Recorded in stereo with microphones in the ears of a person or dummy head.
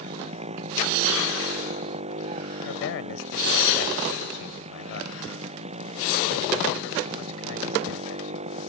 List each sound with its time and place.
0.0 s a motorcycle: 35° right (ahead or behind)
2.6 s a man speaking: 80° left